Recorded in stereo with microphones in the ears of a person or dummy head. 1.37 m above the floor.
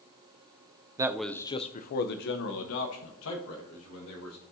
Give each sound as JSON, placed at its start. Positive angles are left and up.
{"t": 1.0, "sound": "a man speaking", "side_deg": -15, "distance_m": 0.6}